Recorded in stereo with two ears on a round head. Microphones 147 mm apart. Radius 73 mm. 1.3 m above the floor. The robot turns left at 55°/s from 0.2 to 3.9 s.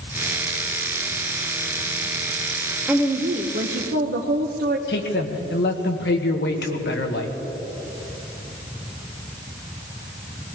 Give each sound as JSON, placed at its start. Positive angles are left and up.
{"t": 2.9, "sound": "a woman speaking", "azimuth_deg": -10, "distance_m": 0.9}
{"t": 4.9, "sound": "a man speaking", "side_deg": 75, "distance_m": 1.6}